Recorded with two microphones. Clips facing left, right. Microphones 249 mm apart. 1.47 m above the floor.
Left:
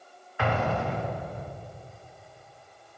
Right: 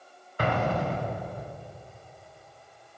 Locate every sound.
0.4 s an explosion: 40° right (ahead or behind), 1.2 m